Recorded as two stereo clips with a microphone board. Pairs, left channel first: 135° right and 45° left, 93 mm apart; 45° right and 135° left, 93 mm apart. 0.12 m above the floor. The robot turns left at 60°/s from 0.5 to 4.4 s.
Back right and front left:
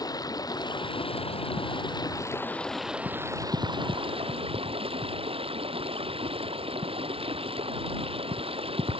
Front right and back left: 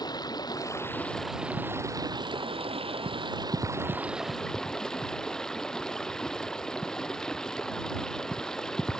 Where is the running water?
85° right; by 9.0 s 40° left.